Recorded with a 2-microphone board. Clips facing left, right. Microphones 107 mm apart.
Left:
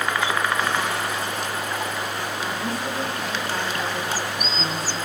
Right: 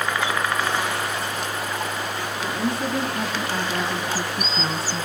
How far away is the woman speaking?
About 4 m.